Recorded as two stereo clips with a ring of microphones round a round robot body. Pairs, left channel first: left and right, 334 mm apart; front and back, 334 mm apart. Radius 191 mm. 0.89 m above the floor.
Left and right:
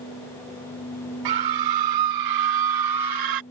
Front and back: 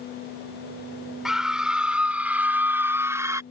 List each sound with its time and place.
1.2 s a scream: 90° right; by 3.4 s 100° right